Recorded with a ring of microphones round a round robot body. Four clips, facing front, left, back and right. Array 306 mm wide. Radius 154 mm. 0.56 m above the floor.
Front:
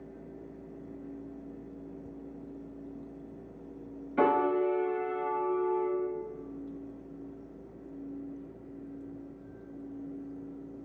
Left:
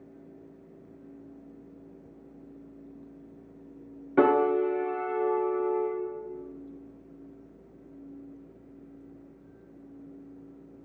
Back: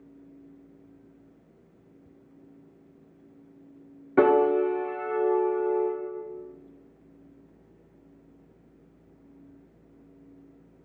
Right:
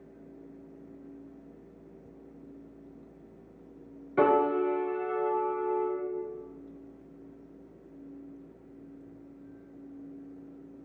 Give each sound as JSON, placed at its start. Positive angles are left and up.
{"t": 4.2, "sound": "a piano", "azimuth_deg": 150, "distance_m": 1.9}